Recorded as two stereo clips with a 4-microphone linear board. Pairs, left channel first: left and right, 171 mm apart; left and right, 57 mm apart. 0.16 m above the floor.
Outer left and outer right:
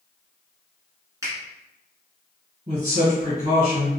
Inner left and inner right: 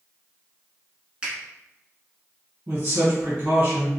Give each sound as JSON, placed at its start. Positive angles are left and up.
{"t": 1.2, "sound": "a finger snap", "side_deg": -20, "distance_m": 1.5}
{"t": 2.7, "sound": "a man speaking", "side_deg": -40, "distance_m": 1.8}